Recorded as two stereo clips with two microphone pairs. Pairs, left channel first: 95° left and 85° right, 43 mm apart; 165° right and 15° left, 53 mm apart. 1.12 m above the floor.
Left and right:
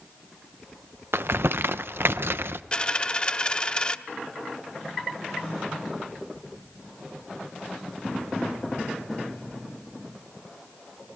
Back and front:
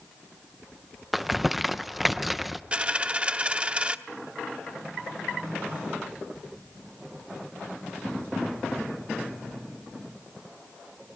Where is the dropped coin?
60° left, 0.7 m.